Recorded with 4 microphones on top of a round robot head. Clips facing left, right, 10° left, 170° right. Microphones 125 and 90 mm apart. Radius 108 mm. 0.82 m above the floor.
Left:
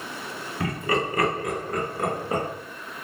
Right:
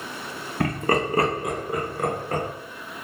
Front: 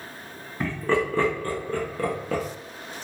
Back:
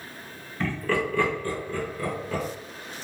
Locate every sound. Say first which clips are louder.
0.6 s laughter: right 3 dB, front 2 dB; 70° right, 0.8 m; by 2.4 s 15° left, 1.0 m